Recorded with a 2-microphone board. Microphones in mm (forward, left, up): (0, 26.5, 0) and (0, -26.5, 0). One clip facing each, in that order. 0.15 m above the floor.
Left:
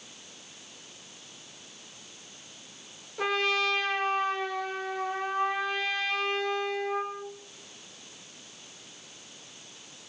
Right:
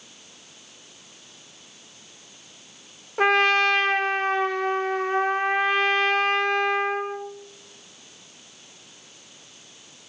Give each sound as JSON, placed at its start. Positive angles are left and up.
{"t": 3.2, "sound": "a trumpet", "side_deg": -55, "distance_m": 1.4}